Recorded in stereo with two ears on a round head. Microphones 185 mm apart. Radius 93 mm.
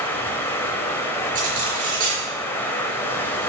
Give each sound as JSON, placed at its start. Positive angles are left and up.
{"t": 0.0, "sound": "running water", "side_deg": 10, "distance_m": 1.7}
{"t": 1.4, "sound": "cutlery clinking", "side_deg": -40, "distance_m": 4.5}